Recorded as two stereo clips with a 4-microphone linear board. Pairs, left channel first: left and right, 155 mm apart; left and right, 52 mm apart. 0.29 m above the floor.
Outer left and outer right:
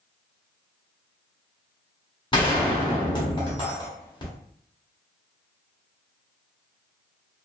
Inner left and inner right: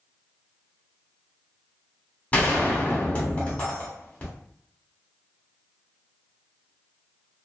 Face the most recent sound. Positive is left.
turn(degrees=30)  # may be behind; listen again after turning